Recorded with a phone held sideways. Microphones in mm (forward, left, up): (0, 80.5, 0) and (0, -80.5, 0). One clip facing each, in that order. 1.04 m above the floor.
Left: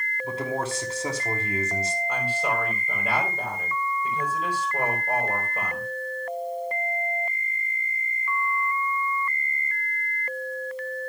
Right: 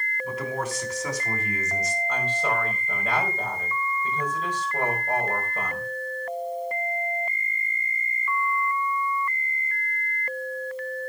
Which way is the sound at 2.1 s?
5° left (ahead or behind).